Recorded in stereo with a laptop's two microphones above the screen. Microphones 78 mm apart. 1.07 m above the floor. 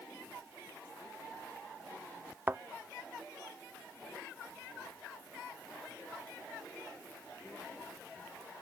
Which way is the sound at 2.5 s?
25° right (ahead or behind).